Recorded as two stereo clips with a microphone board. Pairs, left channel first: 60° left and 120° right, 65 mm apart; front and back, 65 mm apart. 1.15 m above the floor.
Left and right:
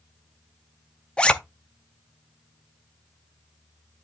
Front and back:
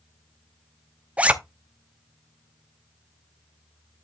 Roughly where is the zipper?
Behind left.